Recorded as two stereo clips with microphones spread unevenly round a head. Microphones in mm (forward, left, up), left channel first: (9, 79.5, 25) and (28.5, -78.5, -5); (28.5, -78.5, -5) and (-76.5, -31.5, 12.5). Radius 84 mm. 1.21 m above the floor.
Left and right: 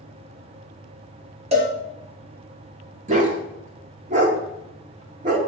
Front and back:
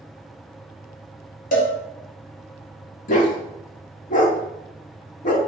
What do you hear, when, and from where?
1.5 s a cowbell: 30° right, 1.8 m
3.1 s a dog barking: 35° right, 1.2 m